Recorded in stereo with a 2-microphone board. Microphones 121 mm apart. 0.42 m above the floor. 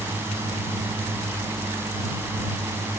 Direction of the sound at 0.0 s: 20° right (ahead or behind).